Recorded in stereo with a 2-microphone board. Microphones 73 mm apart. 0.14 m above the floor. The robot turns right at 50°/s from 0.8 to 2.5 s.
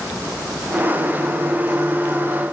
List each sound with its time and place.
Only background noise.